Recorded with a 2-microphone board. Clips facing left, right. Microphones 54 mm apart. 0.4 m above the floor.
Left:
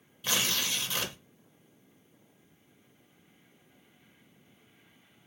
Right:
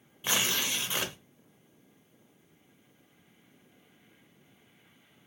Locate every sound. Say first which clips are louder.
0.2 s tearing paper: right 1 dB; 20° right (ahead or behind), 0.8 m